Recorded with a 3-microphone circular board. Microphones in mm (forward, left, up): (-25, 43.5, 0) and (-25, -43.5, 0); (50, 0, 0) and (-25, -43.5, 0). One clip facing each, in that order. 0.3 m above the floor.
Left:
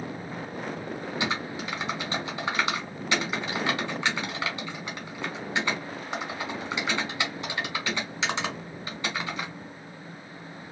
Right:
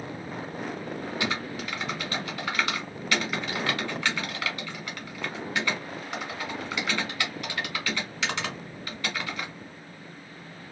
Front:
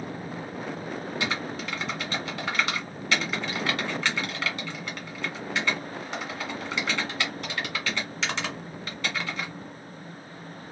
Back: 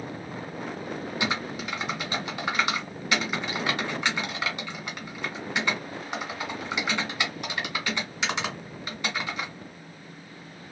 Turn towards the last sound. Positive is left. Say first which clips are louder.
# left 2 dB, back 2 dB
turn(degrees=145)